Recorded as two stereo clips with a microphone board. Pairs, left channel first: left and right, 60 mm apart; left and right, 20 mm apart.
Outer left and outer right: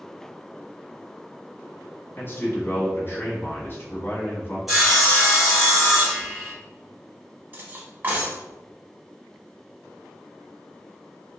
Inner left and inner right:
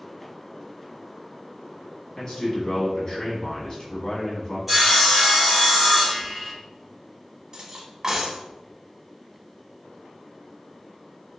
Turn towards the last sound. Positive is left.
turn(degrees=-30)  # may be behind; listen again after turning